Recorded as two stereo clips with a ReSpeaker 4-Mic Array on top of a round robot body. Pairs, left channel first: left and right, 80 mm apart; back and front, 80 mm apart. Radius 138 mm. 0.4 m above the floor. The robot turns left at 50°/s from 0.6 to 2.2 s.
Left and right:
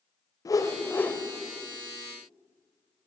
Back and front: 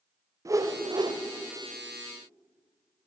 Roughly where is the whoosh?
Ahead left.